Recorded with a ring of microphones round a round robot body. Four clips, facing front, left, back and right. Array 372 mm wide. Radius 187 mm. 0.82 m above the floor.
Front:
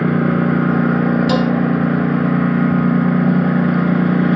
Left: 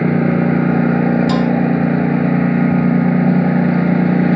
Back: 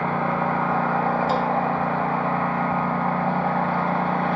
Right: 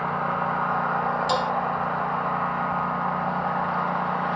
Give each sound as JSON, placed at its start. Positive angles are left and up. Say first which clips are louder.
{"t": 0.0, "sound": "a lawn mower", "louder": "left 10 dB, front 7 dB", "azimuth_deg": 55}
{"t": 1.3, "sound": "dishes clattering", "louder": "left 8 dB, front 6 dB", "azimuth_deg": 5}